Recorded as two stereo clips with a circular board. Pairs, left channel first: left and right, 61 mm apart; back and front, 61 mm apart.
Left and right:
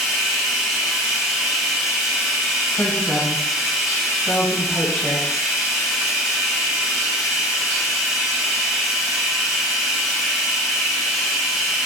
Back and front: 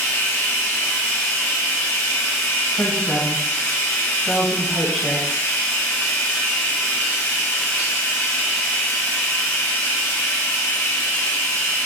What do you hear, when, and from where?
0.0 s running water: 175° right, 0.9 m
2.7 s a woman speaking: 55° left, 1.4 m